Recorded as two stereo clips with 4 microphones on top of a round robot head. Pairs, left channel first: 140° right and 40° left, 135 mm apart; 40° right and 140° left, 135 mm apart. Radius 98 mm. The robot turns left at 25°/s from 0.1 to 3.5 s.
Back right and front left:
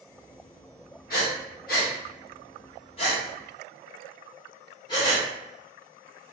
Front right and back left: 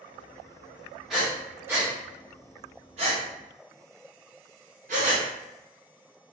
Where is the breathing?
135° right, 0.7 m; by 6.3 s 165° left, 0.7 m.